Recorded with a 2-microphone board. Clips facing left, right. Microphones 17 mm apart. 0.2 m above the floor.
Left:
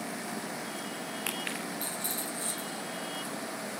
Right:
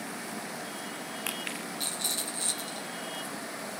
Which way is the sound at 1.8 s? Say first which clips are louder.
Right 3 dB; 45° right (ahead or behind).